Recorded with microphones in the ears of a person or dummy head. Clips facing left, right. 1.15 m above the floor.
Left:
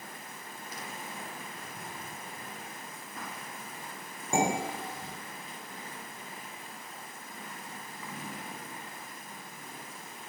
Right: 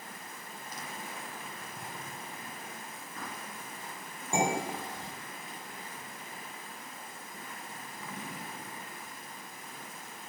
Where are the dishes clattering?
15° left (ahead or behind), 1.8 m.